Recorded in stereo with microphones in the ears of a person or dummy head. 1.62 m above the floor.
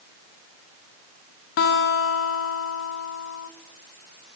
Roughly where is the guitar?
Left.